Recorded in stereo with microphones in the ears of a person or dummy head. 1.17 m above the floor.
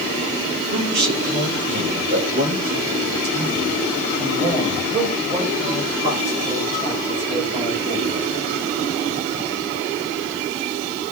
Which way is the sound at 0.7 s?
65° right (ahead or behind).